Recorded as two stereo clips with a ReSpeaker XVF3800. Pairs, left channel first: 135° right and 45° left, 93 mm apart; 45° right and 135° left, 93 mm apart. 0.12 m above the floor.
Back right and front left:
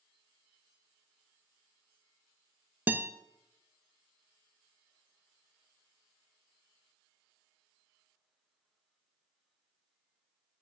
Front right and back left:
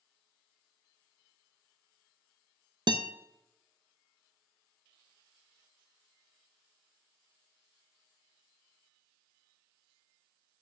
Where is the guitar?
115° left, 0.5 m.